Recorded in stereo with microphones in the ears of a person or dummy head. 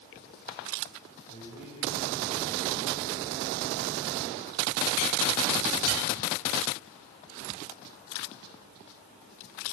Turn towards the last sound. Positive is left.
turn(degrees=10)  # may be behind; listen again after turning